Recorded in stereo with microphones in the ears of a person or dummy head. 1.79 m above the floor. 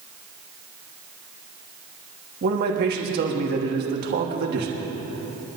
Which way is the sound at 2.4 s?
50° right (ahead or behind).